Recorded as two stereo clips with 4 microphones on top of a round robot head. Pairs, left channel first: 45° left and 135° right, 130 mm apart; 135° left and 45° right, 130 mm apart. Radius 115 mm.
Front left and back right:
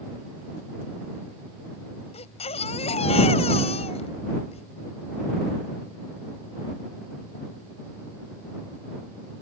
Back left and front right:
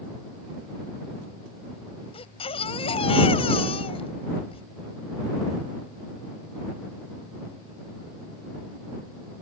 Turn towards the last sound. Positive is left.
turn(degrees=85)